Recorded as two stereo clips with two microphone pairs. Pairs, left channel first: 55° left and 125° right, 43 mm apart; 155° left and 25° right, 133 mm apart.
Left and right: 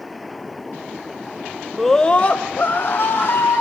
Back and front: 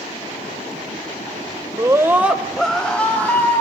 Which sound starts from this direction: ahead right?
A scream, at 1.8 s.